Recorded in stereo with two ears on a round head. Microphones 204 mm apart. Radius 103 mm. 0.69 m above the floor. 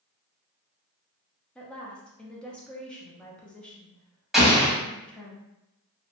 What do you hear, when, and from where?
1.6 s a woman speaking: 5° left (ahead or behind), 0.6 m
4.3 s an explosion: centre (ahead or behind), 0.9 m